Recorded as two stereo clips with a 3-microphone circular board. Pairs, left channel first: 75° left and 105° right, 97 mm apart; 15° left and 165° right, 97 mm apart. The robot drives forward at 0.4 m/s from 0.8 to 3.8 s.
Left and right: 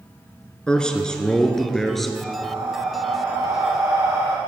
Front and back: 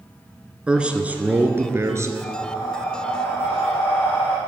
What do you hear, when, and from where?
0.7 s a man speaking: 135° left, 1.1 m; by 2.1 s 160° left, 1.3 m
2.2 s breathing: 45° right, 4 m; by 4.4 s 50° right, 3.5 m